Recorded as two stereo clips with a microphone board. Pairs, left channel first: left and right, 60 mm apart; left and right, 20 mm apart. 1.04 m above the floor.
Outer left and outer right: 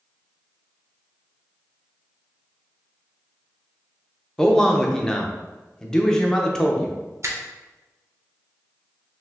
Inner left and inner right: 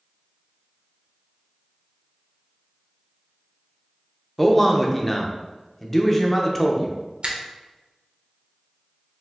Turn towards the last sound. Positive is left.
turn(degrees=-50)  # may be behind; listen again after turning